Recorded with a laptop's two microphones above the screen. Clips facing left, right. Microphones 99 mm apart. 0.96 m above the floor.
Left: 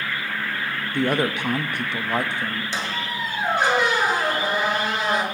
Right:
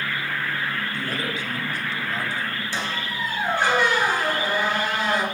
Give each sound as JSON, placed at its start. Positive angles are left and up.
{"t": 0.9, "sound": "a woman speaking", "side_deg": 65, "distance_m": 0.7}
{"t": 2.7, "sound": "a squeak", "side_deg": 20, "distance_m": 2.0}